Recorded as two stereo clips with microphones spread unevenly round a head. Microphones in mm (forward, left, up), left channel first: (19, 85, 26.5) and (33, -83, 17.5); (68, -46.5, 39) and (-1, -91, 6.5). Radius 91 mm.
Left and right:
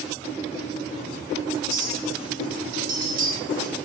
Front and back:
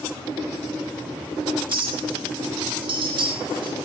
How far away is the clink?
About 5 m.